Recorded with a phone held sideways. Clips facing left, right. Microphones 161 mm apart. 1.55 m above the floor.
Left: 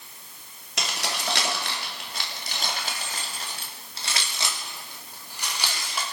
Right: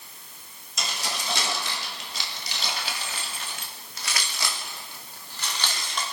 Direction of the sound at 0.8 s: 70° left (ahead or behind).